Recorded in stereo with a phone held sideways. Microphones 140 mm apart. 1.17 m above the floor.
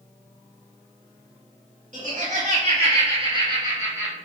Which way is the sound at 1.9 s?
60° right (ahead or behind).